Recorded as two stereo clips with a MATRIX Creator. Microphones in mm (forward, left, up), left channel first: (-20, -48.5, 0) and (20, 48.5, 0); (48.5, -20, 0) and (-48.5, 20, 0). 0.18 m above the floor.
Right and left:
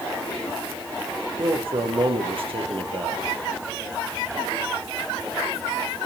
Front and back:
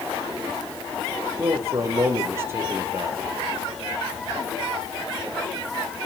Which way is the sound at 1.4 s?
95° left.